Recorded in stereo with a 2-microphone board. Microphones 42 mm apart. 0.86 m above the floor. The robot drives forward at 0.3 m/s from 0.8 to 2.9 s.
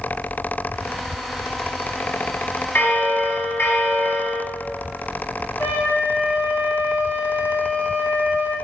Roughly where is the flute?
Left.